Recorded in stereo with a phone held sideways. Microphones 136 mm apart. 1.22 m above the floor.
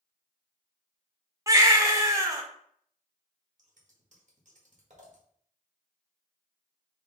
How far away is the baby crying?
About 0.7 m.